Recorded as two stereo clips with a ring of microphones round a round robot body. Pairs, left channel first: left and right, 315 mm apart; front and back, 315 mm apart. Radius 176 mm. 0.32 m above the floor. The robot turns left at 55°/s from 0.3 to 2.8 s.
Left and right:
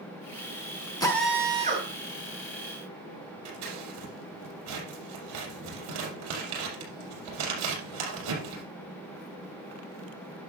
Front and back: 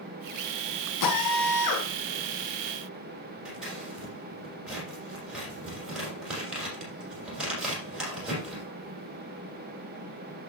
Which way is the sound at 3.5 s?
90° right.